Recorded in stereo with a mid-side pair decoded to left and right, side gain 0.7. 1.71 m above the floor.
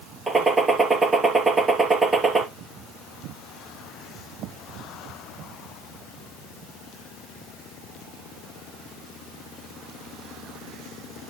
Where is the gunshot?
25° right, 2.5 m.